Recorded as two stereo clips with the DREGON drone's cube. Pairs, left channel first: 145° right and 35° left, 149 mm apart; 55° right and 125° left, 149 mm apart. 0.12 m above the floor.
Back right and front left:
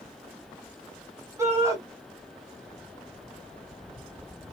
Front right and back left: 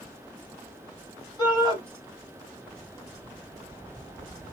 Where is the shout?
20° right, 1.9 m.